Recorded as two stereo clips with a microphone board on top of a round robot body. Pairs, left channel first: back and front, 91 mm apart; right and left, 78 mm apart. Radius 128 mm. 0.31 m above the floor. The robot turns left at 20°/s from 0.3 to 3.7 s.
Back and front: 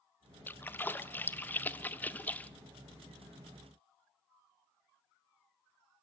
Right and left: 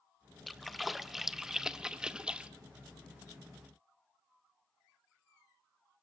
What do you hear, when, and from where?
0.5 s a splash: 175° right, 1.2 m; by 2.5 s 145° left, 1.2 m